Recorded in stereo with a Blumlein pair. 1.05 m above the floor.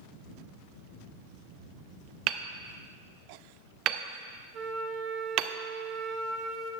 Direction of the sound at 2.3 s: 35° right.